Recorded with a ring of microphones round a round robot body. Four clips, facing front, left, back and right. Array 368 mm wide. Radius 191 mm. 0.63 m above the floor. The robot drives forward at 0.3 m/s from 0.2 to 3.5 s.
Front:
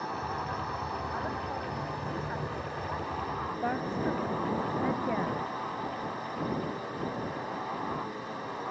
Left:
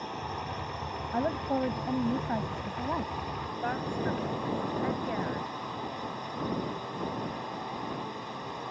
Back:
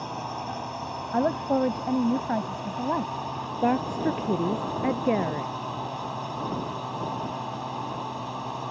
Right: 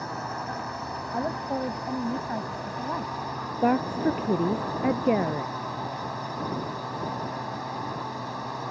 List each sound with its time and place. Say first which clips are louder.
0.0 s a drone: right 4 dB, back 1 dB; 140° right
1.1 s a woman speaking: even, back 10 dB; straight behind
3.6 s a woman speaking: right 10 dB, back 8 dB; 125° right